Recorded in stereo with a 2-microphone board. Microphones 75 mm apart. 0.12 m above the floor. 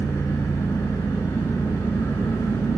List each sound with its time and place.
0.0 s an engine running: 65° left (ahead or behind), 4 m